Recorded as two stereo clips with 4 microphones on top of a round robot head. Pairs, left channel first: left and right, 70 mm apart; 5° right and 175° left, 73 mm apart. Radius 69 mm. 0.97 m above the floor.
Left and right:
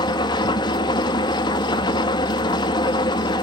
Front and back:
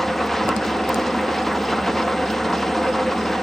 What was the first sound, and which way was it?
An engine running, 80° left.